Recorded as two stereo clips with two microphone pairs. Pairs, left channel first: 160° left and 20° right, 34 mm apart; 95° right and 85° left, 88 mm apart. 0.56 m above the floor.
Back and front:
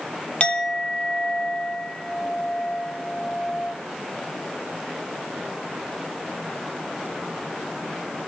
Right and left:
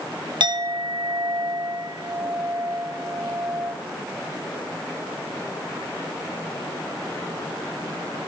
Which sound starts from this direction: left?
A clink, at 0.4 s.